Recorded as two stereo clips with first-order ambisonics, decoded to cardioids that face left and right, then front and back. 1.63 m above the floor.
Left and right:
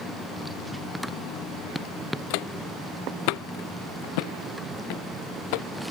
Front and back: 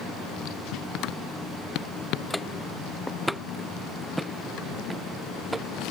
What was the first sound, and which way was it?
Footsteps, 85° left.